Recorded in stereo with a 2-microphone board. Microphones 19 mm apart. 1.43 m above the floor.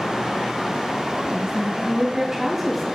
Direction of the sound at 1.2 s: 40° right (ahead or behind).